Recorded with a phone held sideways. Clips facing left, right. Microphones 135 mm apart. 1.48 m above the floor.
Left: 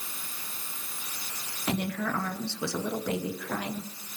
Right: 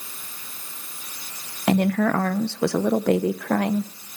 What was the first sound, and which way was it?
A woman speaking, 80° right.